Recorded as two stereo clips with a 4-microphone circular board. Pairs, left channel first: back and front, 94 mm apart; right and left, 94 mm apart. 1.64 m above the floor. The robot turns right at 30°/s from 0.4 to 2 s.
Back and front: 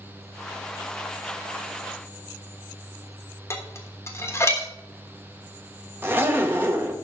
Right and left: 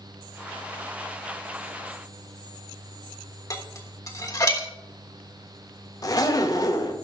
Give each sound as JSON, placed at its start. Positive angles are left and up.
{"t": 3.5, "sound": "dishes clattering", "azimuth_deg": -130, "distance_m": 1.2}
{"t": 6.0, "sound": "a zipper", "azimuth_deg": -60, "distance_m": 0.9}